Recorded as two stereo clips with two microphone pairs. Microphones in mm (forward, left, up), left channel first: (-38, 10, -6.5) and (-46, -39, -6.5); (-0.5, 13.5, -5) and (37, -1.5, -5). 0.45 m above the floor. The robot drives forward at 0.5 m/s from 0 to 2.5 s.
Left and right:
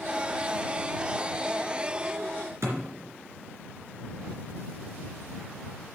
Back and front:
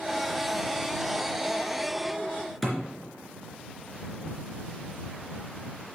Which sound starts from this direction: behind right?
A thud, at 2.6 s.